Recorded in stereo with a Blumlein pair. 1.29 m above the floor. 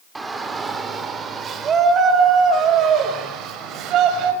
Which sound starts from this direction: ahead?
A shout, at 0.1 s.